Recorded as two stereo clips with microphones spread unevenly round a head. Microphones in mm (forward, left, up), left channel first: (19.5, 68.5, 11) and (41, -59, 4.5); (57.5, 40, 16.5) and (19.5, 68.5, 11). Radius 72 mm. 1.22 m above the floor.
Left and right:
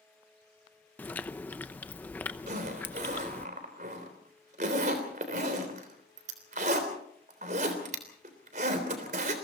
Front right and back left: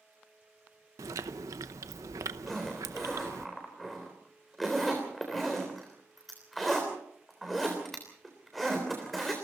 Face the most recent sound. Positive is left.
turn(degrees=-125)